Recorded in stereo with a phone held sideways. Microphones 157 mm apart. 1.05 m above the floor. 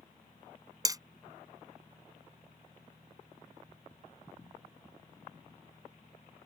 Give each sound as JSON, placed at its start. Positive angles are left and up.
{"t": 0.8, "sound": "hammering", "side_deg": -25}